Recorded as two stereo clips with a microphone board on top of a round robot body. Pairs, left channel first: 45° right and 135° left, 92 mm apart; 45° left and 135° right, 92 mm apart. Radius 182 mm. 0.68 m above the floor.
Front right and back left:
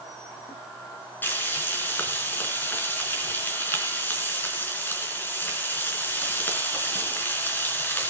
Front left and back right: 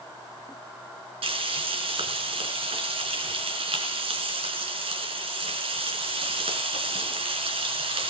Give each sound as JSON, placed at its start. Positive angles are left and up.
{"t": 1.2, "sound": "frying", "azimuth_deg": -115, "distance_m": 4.0}